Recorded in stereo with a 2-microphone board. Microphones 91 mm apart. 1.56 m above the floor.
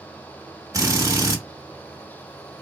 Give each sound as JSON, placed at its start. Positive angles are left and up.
{"t": 0.7, "sound": "a drill", "side_deg": -35, "distance_m": 1.3}